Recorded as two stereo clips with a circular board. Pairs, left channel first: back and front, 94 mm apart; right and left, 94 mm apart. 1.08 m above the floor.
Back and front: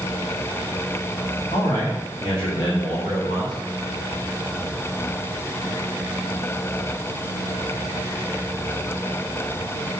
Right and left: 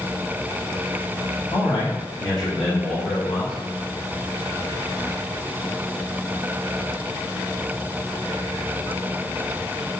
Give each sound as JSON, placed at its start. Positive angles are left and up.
{"t": 1.5, "sound": "a man speaking", "azimuth_deg": -145, "distance_m": 2.0}